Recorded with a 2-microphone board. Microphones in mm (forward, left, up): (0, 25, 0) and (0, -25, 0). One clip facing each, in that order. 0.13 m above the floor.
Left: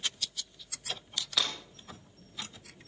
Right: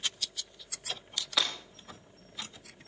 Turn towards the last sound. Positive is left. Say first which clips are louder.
# right 1 dB
turn(degrees=-10)  # may be behind; listen again after turning